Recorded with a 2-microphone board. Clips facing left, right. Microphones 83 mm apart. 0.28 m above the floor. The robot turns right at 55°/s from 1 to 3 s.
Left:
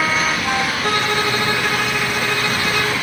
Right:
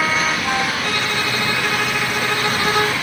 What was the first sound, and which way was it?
A violin, 130° left.